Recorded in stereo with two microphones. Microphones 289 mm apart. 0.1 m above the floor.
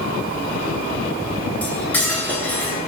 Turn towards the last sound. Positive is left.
turn(degrees=5)  # may be behind; listen again after turning